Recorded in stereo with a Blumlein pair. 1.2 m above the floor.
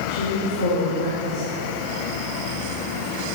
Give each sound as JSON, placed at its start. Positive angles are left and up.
{"t": 0.1, "sound": "a woman speaking", "azimuth_deg": 65, "distance_m": 2.5}